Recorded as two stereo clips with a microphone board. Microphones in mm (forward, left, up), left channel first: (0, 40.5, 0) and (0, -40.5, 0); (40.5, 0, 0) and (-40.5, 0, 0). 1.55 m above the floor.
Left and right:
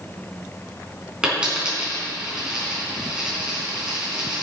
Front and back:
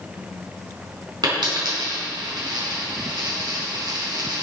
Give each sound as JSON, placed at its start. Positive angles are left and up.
{"t": 1.2, "sound": "a dropped coin", "azimuth_deg": -170, "distance_m": 4.0}